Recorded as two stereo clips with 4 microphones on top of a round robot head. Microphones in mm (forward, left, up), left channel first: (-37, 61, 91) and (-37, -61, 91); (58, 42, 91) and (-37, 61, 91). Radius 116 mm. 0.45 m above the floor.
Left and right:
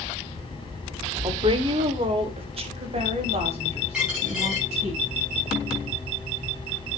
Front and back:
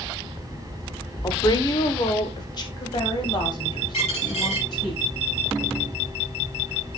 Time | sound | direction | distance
1.2 | a woman speaking | 50° right | 1.2 m
3.9 | a dropped coin | 5° right | 6.5 m